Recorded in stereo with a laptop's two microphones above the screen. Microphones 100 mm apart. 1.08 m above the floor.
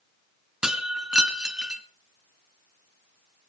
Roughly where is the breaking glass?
Centre.